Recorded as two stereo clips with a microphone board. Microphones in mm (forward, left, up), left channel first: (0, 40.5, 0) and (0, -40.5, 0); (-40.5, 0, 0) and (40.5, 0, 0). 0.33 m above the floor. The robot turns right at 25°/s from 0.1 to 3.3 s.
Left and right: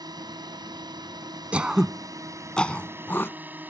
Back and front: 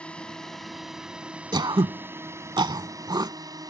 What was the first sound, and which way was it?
A drone, 105° right.